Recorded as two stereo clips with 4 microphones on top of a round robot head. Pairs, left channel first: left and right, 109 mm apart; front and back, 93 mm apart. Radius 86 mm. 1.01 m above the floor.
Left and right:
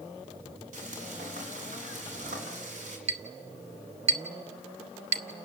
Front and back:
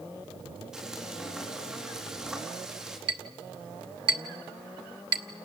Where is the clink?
130° right, 0.9 m.